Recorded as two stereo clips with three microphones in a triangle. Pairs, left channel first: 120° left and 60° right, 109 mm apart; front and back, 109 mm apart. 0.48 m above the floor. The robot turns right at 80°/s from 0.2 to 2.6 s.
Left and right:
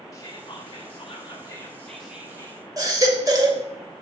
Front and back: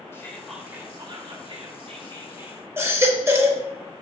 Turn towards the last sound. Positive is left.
turn(degrees=-115)